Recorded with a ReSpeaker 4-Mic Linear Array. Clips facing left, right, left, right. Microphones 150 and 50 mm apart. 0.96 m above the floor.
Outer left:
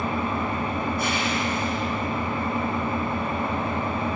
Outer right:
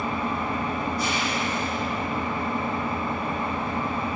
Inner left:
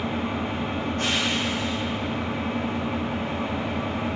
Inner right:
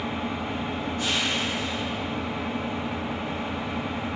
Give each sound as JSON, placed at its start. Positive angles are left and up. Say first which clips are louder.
{"t": 0.0, "sound": "an engine running", "louder": "outer left 1 dB, inner left 2 dB", "side_deg": 60, "distance_m": 1.2}